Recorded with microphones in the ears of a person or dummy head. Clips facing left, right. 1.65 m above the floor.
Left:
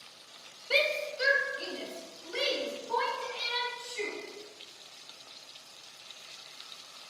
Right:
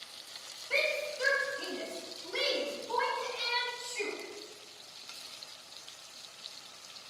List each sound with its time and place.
0.7 s a shout: 55° left (ahead or behind), 0.9 m; by 4.1 s 5° left (ahead or behind), 5.5 m